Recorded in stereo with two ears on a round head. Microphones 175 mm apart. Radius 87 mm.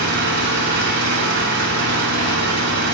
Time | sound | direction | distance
0.0 | an engine running | 60° right (ahead or behind) | 6 m